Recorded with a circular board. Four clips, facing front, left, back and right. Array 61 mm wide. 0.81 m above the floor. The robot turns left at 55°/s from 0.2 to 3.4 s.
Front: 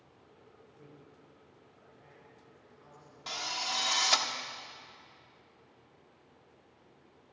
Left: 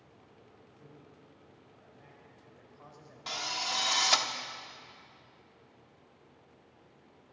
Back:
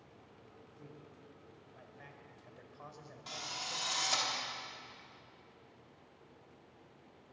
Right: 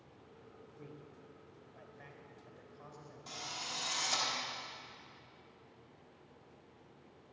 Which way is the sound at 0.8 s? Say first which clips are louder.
Right 3 dB, back 2 dB; 70° right.